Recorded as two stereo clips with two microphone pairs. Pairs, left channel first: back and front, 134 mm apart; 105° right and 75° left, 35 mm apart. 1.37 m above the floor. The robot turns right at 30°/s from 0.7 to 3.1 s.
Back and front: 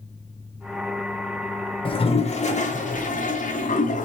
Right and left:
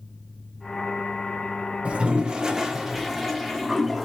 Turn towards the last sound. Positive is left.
turn(degrees=165)